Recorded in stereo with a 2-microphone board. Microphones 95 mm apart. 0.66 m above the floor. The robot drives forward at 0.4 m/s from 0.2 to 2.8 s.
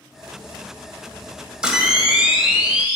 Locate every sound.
1.6 s a camera shutter: 10° right (ahead or behind), 1.6 m